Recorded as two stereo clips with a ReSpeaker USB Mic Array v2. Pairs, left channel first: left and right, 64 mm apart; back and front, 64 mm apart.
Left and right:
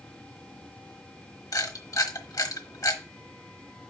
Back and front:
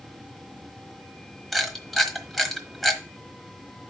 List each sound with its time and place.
1.5 s a camera shutter: 90° left, 1.2 m